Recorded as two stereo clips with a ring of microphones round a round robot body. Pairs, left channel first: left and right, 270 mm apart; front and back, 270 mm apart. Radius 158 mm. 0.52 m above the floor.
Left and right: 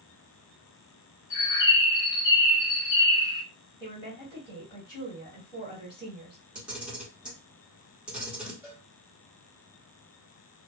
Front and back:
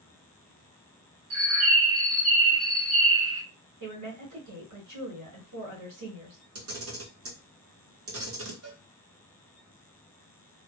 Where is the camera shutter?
175° right, 1.4 m.